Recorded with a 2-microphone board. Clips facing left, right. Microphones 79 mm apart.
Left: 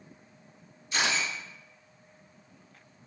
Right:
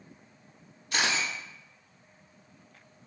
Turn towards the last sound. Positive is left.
turn(degrees=-65)  # may be behind; listen again after turning